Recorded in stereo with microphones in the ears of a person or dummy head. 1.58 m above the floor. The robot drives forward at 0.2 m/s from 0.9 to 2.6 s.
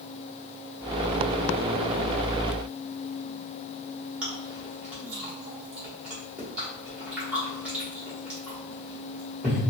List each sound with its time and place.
4.2 s chewing: 5° right (ahead or behind), 1.0 m